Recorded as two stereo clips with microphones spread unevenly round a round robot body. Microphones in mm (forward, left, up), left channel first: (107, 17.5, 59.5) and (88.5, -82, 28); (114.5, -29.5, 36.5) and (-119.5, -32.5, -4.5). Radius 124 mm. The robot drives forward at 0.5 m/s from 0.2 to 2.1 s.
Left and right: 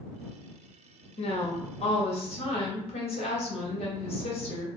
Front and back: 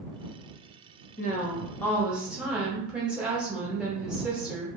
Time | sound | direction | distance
1.2 | a woman speaking | 60° left | 0.8 m